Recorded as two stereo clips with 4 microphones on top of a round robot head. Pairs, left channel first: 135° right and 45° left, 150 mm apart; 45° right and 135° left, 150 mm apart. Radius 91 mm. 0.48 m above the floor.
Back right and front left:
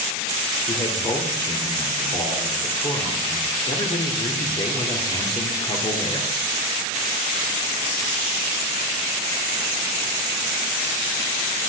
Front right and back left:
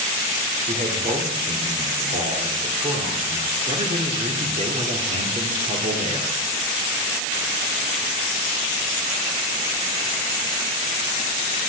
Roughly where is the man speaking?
Behind.